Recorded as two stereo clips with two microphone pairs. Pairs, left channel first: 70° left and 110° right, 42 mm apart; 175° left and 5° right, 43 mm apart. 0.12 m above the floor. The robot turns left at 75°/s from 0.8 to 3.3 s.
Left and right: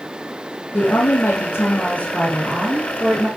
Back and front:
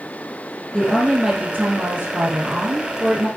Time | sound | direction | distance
0.7 | a woman speaking | 105° left | 4 m